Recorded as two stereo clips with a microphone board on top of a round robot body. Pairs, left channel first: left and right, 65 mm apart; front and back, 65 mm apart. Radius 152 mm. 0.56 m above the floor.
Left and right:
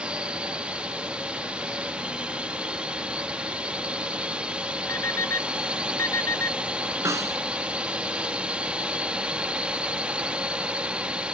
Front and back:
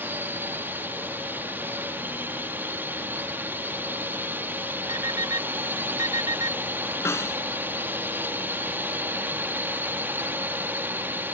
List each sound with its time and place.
0.0 s a drone: 150° right
4.9 s an alarm clock: 145° left
7.0 s a snare drum: 50° right